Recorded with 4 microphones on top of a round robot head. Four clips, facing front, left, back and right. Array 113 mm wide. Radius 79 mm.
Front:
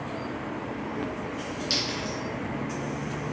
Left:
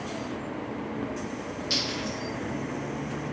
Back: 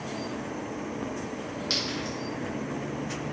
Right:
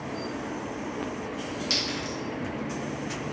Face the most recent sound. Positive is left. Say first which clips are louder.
# even, even
turn(degrees=-135)